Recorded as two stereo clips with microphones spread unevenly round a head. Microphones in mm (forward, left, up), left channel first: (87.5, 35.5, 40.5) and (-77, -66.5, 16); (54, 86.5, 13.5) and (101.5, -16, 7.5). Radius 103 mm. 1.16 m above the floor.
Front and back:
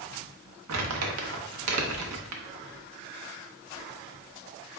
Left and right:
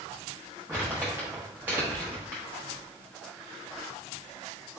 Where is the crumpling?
145° right, 0.9 m.